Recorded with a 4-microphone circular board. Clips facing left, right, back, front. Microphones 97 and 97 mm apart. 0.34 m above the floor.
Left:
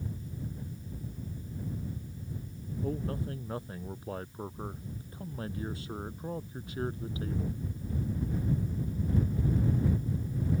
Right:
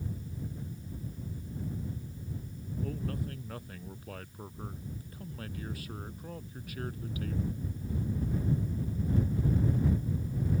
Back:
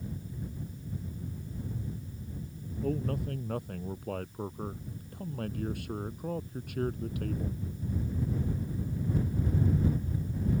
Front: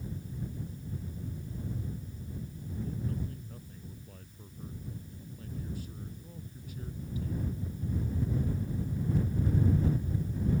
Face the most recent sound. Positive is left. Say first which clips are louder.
# left 3 dB, back 7 dB
turn(degrees=155)